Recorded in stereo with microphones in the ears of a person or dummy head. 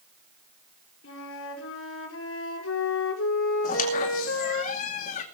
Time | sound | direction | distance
1.0 | a flute | 80° left | 5 m
3.6 | a squeak | 45° left (ahead or behind) | 2 m